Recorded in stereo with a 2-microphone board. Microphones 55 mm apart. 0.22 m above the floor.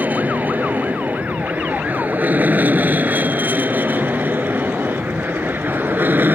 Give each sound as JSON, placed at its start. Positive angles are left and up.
{"t": 0.0, "sound": "an aircraft", "side_deg": -35}